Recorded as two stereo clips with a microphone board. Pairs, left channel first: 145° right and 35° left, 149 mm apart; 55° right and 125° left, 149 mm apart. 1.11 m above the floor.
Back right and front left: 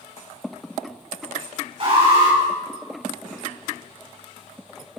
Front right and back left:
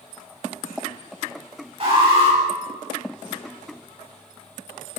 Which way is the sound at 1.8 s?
80° left.